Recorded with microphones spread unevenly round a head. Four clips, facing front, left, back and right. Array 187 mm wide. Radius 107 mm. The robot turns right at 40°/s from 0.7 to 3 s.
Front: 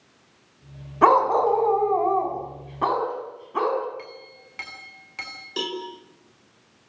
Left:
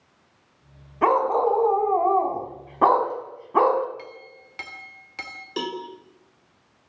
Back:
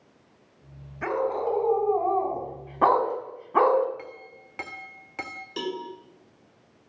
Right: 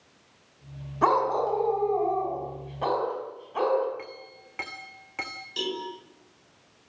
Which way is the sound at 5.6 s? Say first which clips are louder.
Left 3 dB, front 1 dB; 65° left.